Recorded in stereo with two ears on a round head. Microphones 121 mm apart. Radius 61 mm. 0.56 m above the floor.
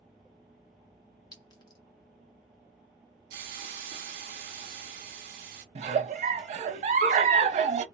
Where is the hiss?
65° right (ahead or behind), 0.9 m.